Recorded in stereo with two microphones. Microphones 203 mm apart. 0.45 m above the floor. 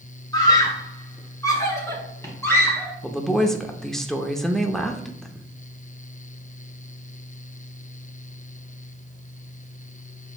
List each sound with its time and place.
0.3 s a scream: 20° left (ahead or behind), 1.4 m; by 2.9 s 10° left (ahead or behind), 2 m
3.0 s a woman speaking: centre (ahead or behind), 0.7 m